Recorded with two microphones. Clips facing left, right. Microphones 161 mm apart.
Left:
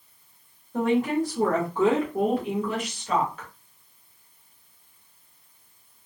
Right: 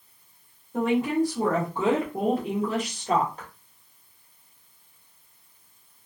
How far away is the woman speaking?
About 1.5 m.